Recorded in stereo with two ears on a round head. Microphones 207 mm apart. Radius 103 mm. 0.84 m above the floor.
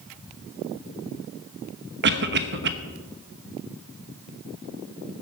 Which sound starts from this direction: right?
A cough, at 2.0 s.